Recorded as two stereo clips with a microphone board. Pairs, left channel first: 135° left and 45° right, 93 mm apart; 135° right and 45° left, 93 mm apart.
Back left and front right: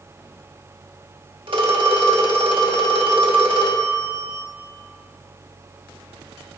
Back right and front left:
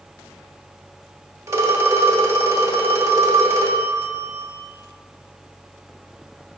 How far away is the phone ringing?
About 0.8 m.